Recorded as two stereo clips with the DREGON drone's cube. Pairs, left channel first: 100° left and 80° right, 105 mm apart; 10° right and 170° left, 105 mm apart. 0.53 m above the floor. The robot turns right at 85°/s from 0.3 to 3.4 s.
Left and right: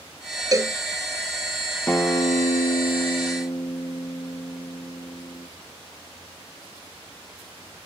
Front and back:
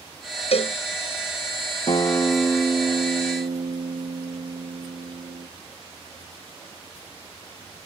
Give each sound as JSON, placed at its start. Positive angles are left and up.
{"t": 0.5, "sound": "a cowbell", "azimuth_deg": -25}
{"t": 1.9, "sound": "a guitar", "azimuth_deg": 25}